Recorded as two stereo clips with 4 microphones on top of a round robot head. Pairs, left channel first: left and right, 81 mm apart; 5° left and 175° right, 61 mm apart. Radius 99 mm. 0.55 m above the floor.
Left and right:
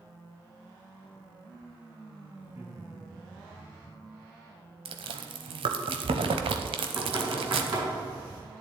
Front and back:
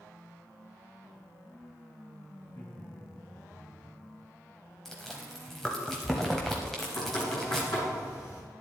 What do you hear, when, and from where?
2.4 s laughter: 40° right, 4 m; by 4.0 s 45° right, 5 m
4.8 s chewing: 85° right, 0.8 m
6.8 s knocking: 45° right, 4.5 m